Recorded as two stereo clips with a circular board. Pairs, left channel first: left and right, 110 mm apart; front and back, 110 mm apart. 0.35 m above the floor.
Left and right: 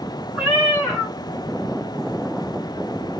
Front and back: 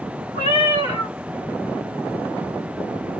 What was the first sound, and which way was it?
A cat meowing, 170° right.